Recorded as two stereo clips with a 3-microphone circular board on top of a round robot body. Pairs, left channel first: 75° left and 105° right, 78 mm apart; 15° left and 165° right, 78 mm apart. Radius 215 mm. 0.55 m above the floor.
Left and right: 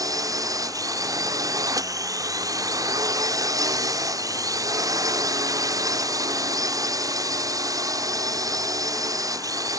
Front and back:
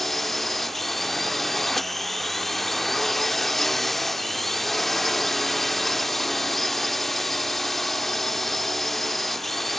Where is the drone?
75° right.